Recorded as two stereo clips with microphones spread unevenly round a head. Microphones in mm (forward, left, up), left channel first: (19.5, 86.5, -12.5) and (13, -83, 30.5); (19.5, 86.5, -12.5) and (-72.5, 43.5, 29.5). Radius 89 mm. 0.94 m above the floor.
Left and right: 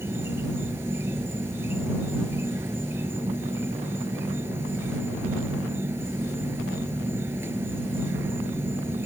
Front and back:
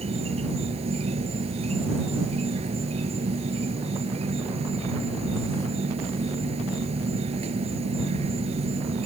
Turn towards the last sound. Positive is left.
turn(degrees=-170)